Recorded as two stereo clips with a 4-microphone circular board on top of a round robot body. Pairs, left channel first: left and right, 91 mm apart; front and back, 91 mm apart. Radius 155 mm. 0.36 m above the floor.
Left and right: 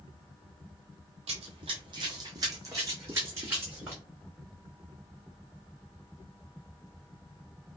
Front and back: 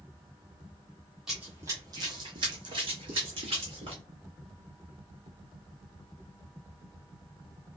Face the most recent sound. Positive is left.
turn(degrees=-160)